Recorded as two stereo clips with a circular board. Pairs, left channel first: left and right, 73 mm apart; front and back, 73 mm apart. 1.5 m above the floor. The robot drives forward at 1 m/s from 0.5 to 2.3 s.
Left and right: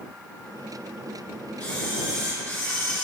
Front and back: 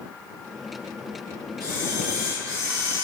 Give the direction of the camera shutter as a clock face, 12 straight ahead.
7 o'clock.